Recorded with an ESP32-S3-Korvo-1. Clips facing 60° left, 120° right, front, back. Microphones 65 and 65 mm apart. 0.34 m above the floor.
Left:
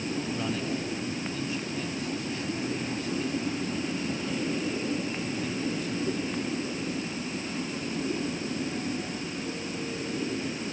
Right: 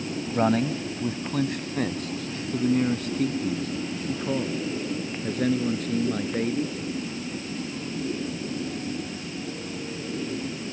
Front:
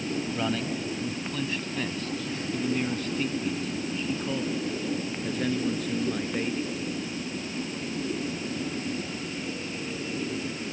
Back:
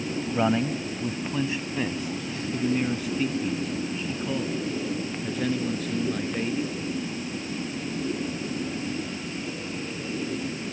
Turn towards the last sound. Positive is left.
turn(degrees=-90)